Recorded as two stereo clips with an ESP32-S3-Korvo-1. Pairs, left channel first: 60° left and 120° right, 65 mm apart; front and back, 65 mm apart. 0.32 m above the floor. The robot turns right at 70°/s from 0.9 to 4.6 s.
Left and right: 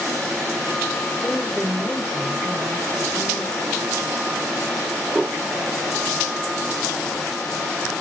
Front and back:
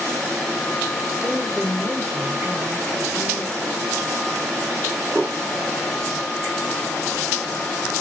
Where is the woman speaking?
150° left, 1.4 m; by 3.6 s 45° right, 1.4 m.